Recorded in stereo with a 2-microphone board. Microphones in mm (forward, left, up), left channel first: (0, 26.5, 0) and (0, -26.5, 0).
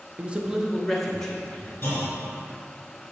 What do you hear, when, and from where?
0.2 s a man speaking: 25° right (ahead or behind), 0.6 m; by 1.7 s 15° left (ahead or behind), 1.5 m
1.8 s a clunk: 45° left (ahead or behind), 2 m